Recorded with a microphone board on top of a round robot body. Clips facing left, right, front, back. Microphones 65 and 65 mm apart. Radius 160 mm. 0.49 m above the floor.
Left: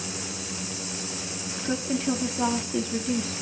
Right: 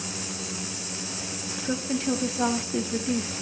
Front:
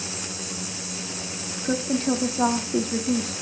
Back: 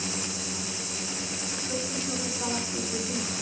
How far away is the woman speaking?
About 1.3 m.